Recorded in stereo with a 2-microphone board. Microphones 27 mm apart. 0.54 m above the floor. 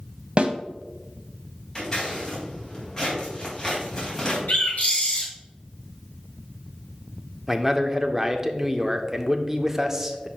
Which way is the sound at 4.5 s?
70° left (ahead or behind).